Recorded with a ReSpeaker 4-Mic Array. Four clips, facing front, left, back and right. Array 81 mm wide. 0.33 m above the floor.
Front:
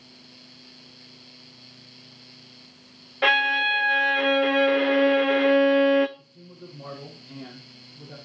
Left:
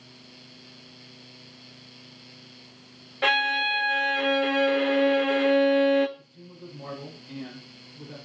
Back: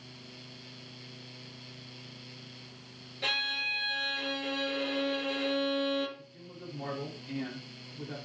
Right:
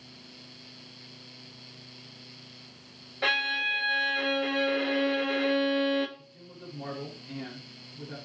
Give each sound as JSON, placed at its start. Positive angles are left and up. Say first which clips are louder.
{"t": 3.2, "sound": "a violin", "louder": "left 5 dB, front 15 dB", "azimuth_deg": 10, "distance_m": 0.7}
{"t": 6.2, "sound": "a man speaking", "louder": "left 2 dB, front 1 dB", "azimuth_deg": -160, "distance_m": 5.5}